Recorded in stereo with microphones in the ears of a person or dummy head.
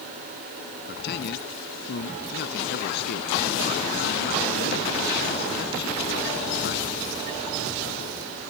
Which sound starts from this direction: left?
A man speaking, at 0.9 s.